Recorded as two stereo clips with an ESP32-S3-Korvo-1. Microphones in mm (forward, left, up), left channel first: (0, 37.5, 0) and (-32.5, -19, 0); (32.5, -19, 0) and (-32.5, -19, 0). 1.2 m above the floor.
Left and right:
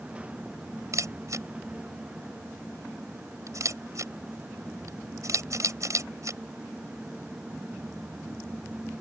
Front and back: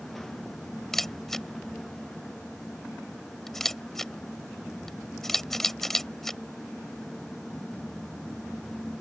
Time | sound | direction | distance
0.9 | a camera shutter | 85° right | ?